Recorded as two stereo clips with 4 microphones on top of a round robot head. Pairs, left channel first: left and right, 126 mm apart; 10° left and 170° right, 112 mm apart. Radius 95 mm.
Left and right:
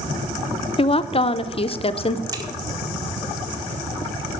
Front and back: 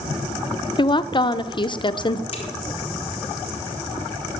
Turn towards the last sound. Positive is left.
turn(degrees=-30)